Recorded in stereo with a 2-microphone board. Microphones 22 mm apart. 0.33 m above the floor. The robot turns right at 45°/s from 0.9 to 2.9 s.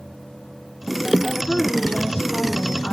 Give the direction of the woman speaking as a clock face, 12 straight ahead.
11 o'clock.